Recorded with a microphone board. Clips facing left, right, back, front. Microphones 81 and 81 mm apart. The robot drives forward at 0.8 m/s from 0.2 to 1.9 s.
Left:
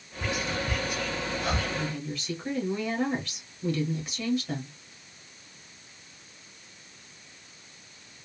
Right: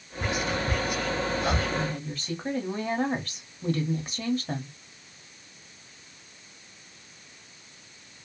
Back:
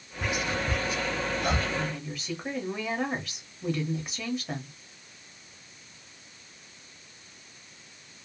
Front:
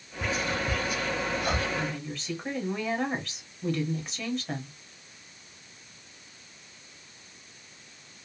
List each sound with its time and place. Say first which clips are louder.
0.2 s whispering: right 2 dB, even; 105° right, 0.9 m; by 1.7 s 165° right, 1.5 m
1.8 s a woman speaking: right 2 dB, even; 95° right, 1.2 m; by 4.7 s 105° right, 1.2 m